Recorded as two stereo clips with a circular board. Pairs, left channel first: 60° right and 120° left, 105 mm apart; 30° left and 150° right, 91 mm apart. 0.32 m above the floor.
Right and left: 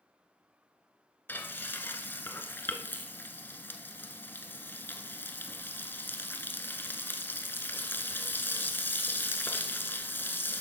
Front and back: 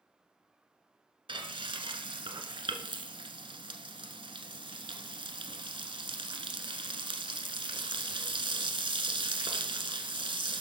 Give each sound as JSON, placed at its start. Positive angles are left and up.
{"t": 1.3, "sound": "frying", "azimuth_deg": -130, "distance_m": 1.0}